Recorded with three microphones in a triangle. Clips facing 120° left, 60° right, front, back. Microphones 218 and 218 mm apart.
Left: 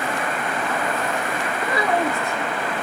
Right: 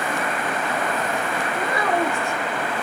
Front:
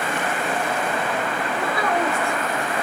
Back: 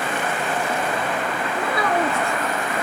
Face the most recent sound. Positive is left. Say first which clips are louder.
# left 1 dB, back 1 dB
turn(degrees=170)